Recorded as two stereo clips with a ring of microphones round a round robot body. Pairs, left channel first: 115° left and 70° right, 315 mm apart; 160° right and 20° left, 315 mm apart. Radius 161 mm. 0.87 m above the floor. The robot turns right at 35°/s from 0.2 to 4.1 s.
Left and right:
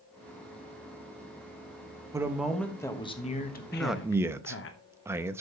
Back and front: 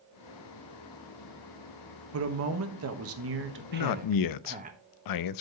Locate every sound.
2.1 s a man speaking: 10° left, 1.2 m; by 4.7 s 80° left, 1.2 m
3.7 s a man speaking: 165° right, 0.6 m; by 5.4 s 150° right, 0.6 m